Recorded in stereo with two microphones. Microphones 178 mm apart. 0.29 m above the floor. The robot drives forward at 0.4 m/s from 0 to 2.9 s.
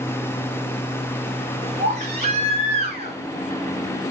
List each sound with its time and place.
1.8 s a baby crying: 40° right (ahead or behind), 2.5 m; by 3.2 s 35° right (ahead or behind), 2.5 m